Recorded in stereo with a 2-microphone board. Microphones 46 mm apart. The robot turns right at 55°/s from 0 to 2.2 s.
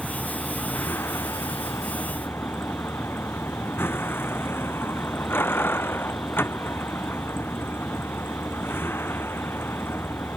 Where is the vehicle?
5° left; by 10.4 s 125° left.